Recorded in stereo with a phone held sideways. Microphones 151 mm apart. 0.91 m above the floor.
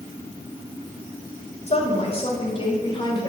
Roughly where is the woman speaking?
Left.